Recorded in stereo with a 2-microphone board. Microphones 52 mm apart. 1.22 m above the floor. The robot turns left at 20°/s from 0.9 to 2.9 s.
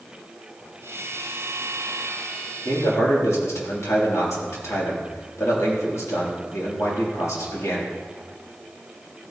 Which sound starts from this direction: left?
A man speaking, at 2.6 s.